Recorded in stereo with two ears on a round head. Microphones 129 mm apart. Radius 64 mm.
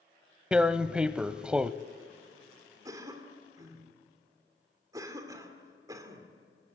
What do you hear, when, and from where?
0.5 s tearing paper: 5° right (ahead or behind), 0.5 m
2.9 s a cough: 25° right (ahead or behind), 2.5 m